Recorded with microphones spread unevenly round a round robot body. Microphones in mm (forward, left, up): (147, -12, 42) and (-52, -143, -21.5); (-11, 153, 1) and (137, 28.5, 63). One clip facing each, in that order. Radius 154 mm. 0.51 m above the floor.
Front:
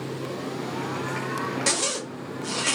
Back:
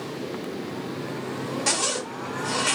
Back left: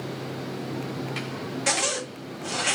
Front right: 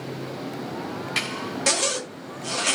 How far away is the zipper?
About 1.1 m.